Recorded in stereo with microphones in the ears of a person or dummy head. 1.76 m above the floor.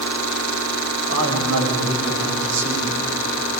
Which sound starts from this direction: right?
A man speaking, at 1.1 s.